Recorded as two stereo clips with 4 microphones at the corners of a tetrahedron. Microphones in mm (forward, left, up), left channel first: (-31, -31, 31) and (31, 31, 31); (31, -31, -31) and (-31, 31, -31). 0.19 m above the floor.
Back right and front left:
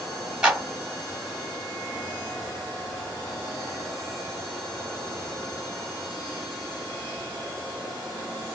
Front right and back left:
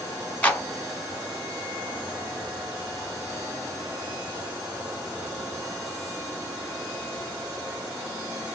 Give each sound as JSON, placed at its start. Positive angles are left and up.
{"t": 0.4, "sound": "a clap", "azimuth_deg": -15, "distance_m": 1.1}